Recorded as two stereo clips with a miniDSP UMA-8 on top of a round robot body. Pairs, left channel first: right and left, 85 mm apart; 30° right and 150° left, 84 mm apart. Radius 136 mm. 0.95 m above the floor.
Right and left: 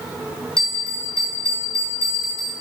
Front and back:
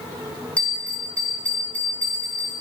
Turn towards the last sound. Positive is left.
turn(degrees=-105)